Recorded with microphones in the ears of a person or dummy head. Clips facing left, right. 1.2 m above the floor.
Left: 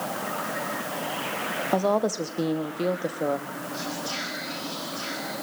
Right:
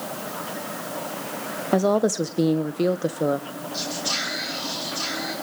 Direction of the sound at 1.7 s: 20° right (ahead or behind).